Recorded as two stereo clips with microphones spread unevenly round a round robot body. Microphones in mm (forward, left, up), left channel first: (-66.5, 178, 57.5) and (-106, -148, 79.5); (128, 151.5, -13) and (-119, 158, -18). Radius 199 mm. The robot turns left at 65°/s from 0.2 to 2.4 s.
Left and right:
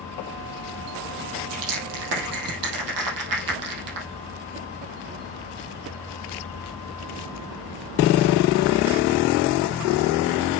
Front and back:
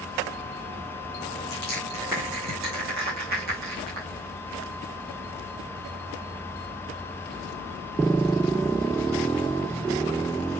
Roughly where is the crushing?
Ahead right.